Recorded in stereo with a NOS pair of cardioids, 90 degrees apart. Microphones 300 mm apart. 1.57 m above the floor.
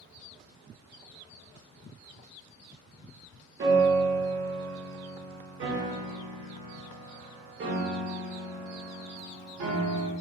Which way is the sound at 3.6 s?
40° right.